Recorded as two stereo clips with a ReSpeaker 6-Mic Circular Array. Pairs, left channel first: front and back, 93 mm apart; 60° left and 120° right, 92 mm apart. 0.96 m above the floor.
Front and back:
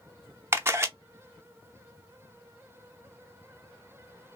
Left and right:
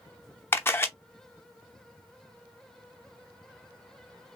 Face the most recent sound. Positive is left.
turn(degrees=120)